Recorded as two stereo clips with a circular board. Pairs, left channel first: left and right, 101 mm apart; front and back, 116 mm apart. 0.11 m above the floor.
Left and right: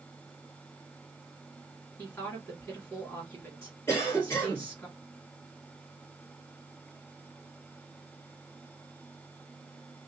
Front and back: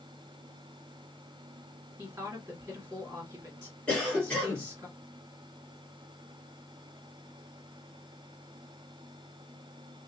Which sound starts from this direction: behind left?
A woman speaking, at 2.0 s.